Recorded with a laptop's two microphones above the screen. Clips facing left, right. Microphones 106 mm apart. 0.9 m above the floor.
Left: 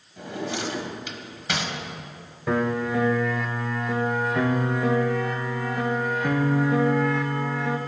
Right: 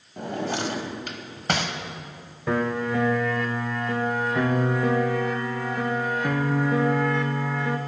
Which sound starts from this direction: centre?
A piano, at 2.5 s.